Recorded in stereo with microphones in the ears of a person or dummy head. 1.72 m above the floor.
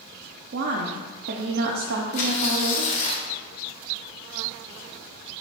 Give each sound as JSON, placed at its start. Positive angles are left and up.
{"t": 0.5, "sound": "a woman speaking", "side_deg": -55, "distance_m": 0.7}
{"t": 2.1, "sound": "tearing paper", "side_deg": 45, "distance_m": 0.8}